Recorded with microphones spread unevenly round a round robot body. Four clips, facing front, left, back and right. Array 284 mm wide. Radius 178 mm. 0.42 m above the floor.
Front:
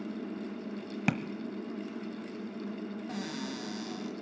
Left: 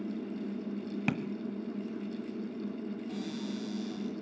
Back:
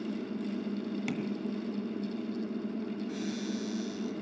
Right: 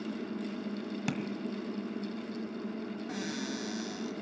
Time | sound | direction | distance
1.1 | tapping | straight ahead | 1.1 m
3.1 | a cupboard door | 35° right | 3 m